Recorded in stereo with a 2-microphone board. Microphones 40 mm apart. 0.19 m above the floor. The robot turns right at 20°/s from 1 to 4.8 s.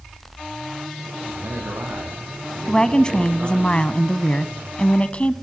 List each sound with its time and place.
1.2 s a man speaking: 80° right, 8 m; by 3.7 s 30° right, 8 m
2.7 s a woman speaking: 35° left, 1.1 m; by 5.3 s 80° left, 1.1 m